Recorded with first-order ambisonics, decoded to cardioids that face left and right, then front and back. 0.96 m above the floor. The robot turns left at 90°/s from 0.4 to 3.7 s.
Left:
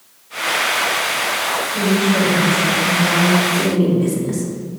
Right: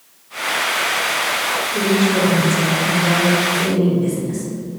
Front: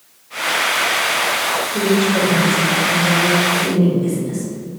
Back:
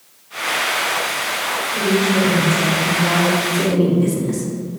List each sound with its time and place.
1.7 s a woman speaking: 30° right, 2 m; by 3.4 s straight behind, 2 m
3.5 s a woman speaking: 145° left, 1.8 m; by 4.5 s 130° left, 1.8 m